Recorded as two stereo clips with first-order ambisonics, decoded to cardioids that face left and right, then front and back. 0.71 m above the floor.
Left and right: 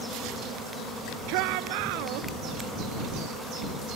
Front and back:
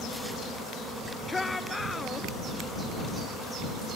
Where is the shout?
80° right.